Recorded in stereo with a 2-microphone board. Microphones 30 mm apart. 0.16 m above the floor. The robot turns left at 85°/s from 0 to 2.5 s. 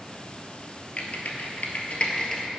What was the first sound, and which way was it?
Typing on a keyboard, 40° left (ahead or behind).